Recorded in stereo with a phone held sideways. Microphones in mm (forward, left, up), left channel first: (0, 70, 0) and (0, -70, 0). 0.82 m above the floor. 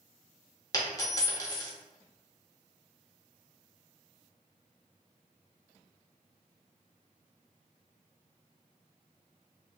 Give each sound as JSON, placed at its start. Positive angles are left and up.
{"t": 0.7, "sound": "a dropped coin", "side_deg": 25, "distance_m": 0.6}